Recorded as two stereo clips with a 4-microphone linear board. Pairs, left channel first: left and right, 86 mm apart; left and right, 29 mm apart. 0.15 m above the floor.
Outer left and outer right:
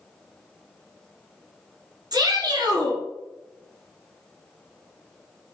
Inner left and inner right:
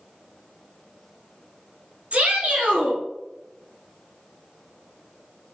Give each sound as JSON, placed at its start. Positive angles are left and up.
{"t": 2.1, "sound": "a shout", "side_deg": -55, "distance_m": 1.6}